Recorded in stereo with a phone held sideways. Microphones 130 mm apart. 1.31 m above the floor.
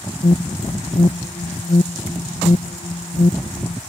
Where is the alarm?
65° left (ahead or behind).